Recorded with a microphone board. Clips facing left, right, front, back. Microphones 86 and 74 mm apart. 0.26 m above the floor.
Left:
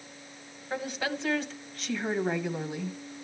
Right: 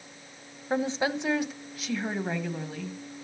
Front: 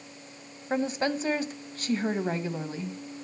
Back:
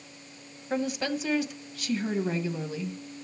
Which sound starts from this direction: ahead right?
A woman speaking, at 0.7 s.